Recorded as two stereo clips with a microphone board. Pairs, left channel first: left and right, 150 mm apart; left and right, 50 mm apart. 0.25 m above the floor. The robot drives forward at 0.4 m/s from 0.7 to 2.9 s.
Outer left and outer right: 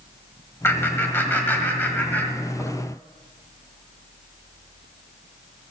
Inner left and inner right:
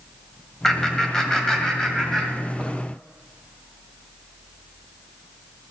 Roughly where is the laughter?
Centre.